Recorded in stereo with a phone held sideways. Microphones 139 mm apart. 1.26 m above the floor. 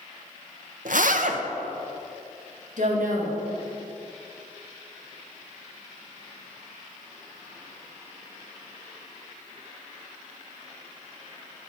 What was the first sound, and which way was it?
A zipper, 70° right (ahead or behind).